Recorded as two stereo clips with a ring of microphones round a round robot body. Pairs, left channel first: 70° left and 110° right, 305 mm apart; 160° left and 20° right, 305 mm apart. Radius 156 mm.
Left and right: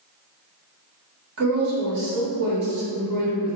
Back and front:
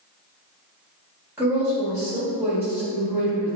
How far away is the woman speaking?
About 1.8 m.